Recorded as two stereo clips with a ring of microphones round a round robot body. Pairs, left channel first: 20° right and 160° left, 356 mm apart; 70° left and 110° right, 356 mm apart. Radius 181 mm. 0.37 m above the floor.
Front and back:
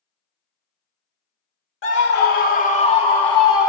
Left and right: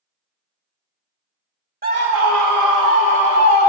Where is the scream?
60° right, 1.0 m; by 3.7 s 100° right, 1.9 m.